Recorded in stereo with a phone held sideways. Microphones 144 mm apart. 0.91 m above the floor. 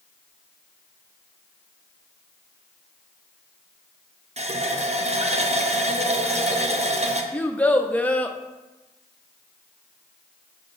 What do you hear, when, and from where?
4.4 s a running tap: 45° right (ahead or behind), 0.6 m
7.3 s a child speaking: 10° left (ahead or behind), 0.6 m